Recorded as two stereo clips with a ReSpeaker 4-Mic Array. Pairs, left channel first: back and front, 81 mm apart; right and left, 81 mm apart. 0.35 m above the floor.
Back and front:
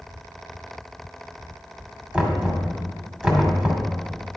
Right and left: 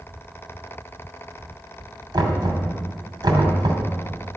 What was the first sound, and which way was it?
Knocking, 75° left.